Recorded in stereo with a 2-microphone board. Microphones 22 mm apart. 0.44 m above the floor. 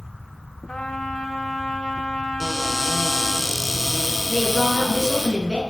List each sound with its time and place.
0.7 s a trumpet: 55° left (ahead or behind), 2 m
2.4 s a cupboard door: 5° right (ahead or behind), 2.5 m
4.3 s a woman speaking: 20° right (ahead or behind), 5 m